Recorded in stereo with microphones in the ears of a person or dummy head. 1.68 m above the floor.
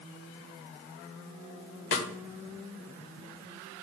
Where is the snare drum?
75° left (ahead or behind), 1.5 m.